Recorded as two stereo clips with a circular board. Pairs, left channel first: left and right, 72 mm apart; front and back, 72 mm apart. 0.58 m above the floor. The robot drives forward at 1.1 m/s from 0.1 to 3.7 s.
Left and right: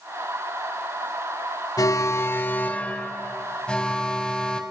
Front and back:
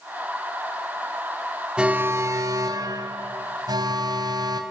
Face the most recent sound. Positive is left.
turn(degrees=165)